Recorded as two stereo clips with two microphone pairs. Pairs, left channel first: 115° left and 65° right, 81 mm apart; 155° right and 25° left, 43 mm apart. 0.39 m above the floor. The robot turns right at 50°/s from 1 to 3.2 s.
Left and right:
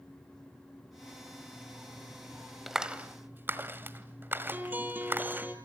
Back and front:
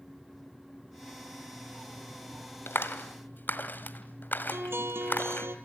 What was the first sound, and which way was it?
A clap, 150° right.